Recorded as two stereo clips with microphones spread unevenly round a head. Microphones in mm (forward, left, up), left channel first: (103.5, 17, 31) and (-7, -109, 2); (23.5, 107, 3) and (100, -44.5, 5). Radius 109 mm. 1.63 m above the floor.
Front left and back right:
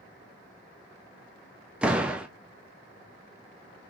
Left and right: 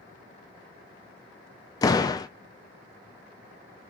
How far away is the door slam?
About 0.5 m.